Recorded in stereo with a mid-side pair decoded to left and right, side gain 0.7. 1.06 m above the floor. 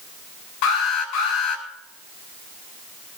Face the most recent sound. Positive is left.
turn(degrees=65)